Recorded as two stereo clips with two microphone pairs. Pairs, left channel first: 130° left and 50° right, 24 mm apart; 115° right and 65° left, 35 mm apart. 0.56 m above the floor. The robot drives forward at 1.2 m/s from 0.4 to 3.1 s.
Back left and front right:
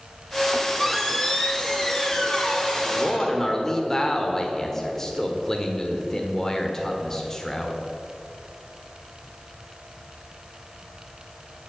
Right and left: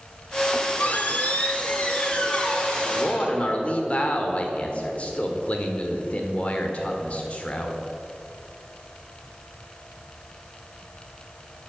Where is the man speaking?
155° right, 1.5 m.